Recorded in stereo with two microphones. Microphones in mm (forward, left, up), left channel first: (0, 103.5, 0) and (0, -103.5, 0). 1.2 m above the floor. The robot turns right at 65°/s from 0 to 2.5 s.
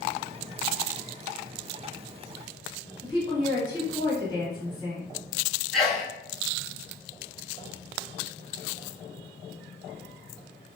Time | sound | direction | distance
3.0 | a woman speaking | 20° left (ahead or behind) | 1.4 m
5.7 | a sneeze | centre (ahead or behind) | 0.9 m